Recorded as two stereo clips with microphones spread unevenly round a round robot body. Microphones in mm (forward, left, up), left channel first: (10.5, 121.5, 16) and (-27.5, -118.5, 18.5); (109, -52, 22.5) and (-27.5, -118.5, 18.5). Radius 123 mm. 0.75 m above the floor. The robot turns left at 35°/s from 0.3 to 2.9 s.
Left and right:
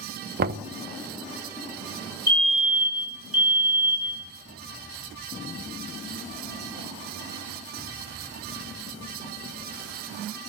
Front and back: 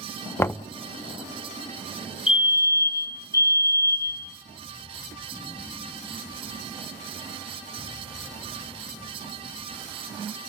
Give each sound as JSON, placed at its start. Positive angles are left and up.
{"t": 0.4, "sound": "knocking", "azimuth_deg": -50, "distance_m": 0.6}
{"t": 2.3, "sound": "a fire alarm", "azimuth_deg": -20, "distance_m": 3.5}